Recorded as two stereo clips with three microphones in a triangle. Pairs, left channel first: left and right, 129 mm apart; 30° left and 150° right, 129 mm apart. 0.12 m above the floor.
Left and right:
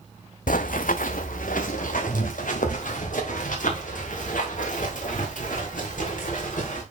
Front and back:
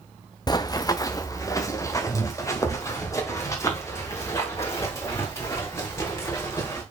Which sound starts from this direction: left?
Running footsteps, at 0.5 s.